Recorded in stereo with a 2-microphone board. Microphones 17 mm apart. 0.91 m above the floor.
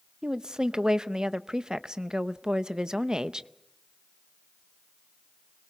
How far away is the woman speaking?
About 0.6 m.